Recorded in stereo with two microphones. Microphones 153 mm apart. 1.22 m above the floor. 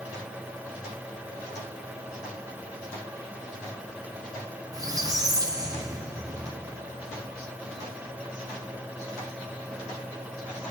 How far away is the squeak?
About 1.0 m.